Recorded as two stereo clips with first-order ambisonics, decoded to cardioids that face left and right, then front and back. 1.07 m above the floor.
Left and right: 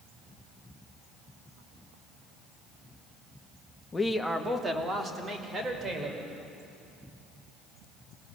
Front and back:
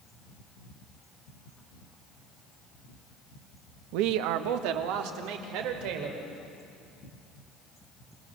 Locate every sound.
3.9 s a man speaking: 165° left, 0.9 m; by 6.3 s 155° right, 4.5 m